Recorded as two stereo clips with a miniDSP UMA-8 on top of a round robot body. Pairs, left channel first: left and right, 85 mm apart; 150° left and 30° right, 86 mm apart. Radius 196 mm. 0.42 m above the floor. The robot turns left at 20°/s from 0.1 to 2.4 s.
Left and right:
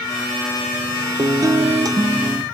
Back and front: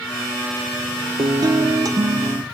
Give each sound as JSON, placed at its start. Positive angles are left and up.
{"t": 1.2, "sound": "a guitar", "azimuth_deg": -50, "distance_m": 1.3}